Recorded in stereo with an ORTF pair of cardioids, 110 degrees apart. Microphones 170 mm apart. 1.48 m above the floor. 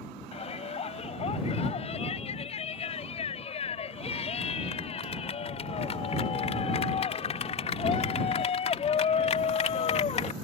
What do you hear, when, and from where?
0.3 s a shout: 35° left